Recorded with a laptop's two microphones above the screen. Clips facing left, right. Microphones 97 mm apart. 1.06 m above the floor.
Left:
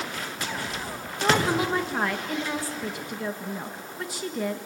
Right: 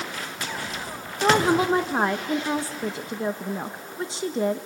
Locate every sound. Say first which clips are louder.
1.2 s a woman speaking: right 4 dB; 25° right (ahead or behind), 1.2 m